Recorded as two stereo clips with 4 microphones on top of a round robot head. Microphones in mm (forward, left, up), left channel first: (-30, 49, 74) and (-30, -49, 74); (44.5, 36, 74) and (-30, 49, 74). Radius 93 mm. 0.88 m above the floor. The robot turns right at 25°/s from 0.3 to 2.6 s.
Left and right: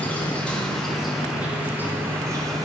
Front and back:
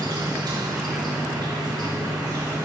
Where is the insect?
160° left, 3 m; by 2.6 s 140° right, 3 m.